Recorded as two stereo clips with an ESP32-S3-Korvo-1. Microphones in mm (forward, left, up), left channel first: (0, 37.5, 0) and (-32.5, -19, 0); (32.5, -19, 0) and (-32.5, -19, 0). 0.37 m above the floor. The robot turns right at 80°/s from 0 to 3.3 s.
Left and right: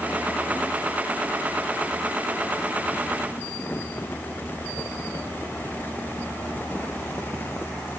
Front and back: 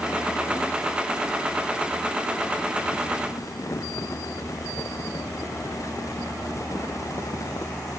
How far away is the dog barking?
I don't hear a dog barking.